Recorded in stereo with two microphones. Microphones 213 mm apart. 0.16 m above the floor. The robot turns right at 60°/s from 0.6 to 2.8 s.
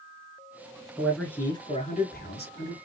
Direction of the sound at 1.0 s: 10° right.